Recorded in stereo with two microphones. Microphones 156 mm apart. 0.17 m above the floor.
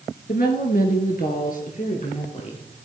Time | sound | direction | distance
0.3 | a woman speaking | 65° left (ahead or behind) | 2.5 m